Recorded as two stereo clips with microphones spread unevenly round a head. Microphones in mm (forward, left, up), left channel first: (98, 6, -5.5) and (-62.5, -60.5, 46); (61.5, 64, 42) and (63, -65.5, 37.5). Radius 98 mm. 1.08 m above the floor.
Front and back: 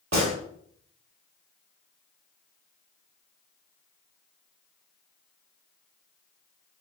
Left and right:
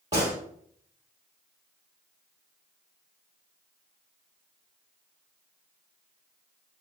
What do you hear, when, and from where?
0.1 s a gunshot: 160° right, 1.8 m